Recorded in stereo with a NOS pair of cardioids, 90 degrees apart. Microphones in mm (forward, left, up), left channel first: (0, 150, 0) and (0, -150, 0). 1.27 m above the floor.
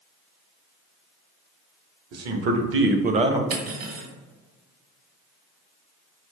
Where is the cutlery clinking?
55° right, 1.3 m.